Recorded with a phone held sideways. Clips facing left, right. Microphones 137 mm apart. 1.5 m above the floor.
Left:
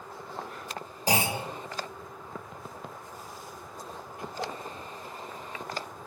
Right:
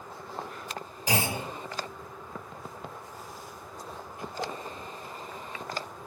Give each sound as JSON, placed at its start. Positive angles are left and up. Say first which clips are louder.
{"t": 1.1, "sound": "a clunk", "louder": "left 2 dB", "side_deg": 35, "distance_m": 2.0}